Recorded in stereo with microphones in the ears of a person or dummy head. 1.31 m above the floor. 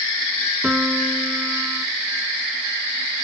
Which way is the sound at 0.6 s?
Centre (ahead or behind).